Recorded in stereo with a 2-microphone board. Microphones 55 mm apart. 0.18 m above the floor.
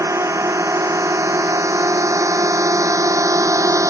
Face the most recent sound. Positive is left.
turn(degrees=-75)  # may be behind; listen again after turning